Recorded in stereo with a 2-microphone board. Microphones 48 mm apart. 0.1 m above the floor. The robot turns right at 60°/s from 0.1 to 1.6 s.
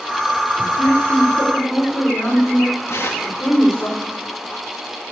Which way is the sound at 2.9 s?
65° left (ahead or behind).